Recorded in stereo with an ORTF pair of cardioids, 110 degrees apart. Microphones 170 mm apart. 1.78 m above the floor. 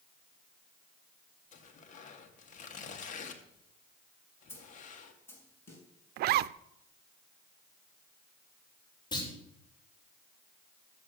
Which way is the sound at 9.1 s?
25° left.